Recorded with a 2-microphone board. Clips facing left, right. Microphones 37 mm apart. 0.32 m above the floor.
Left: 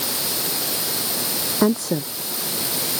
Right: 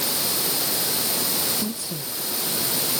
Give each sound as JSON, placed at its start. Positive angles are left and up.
{"t": 1.6, "sound": "a woman speaking", "side_deg": 85}